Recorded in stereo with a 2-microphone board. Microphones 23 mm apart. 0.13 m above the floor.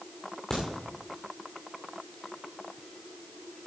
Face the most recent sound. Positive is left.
turn(degrees=25)  # may be behind; listen again after turning